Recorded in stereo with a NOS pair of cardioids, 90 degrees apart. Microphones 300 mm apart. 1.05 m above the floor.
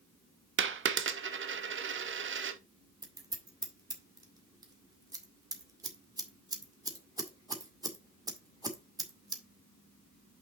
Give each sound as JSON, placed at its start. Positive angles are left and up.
{"t": 0.6, "sound": "a dropped coin", "azimuth_deg": -40, "distance_m": 1.2}
{"t": 3.0, "sound": "scissors", "azimuth_deg": -10, "distance_m": 2.0}